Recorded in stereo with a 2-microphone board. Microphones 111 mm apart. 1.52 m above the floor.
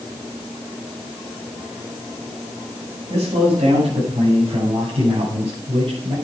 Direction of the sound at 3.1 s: 75° right (ahead or behind).